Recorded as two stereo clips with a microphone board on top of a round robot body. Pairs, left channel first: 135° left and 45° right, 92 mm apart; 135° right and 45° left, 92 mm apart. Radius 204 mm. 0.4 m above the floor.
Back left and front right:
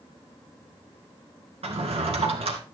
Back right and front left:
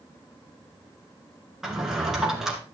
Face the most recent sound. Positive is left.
turn(degrees=-40)